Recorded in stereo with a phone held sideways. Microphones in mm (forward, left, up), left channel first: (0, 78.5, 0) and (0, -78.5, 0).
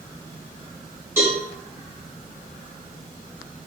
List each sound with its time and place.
1.2 s a cowbell: 15° right (ahead or behind), 4 m